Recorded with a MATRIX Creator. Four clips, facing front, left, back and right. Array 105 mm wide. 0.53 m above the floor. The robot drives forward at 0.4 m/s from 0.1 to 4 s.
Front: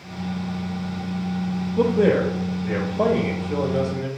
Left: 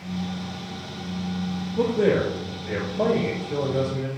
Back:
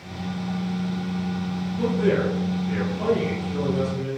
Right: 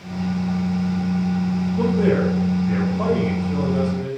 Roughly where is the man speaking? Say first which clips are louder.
Right 1 dB, front 4 dB; ahead.